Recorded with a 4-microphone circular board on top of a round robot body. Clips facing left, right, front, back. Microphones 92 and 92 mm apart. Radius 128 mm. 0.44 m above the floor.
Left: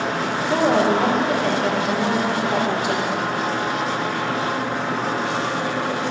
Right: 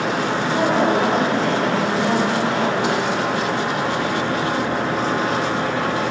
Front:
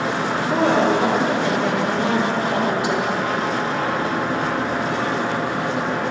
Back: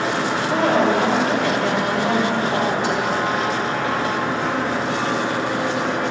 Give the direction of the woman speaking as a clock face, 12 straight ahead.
10 o'clock.